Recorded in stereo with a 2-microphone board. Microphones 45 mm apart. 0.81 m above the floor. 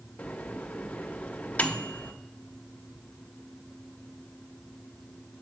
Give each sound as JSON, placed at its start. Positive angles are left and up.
{"t": 0.2, "sound": "a microwave", "side_deg": 35, "distance_m": 0.6}